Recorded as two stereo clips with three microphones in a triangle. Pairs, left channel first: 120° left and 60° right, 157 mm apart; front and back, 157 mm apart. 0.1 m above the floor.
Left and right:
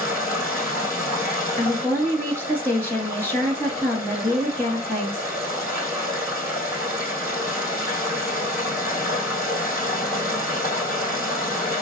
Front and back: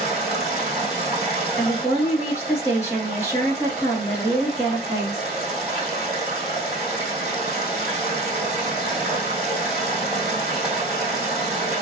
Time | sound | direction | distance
0.0 | running water | 95° left | 2.5 m
1.6 | a woman speaking | 55° left | 1.8 m